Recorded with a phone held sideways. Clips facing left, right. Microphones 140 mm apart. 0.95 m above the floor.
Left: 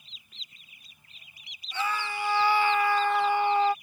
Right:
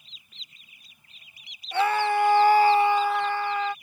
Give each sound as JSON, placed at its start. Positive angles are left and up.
{"t": 1.7, "sound": "a scream", "side_deg": -65}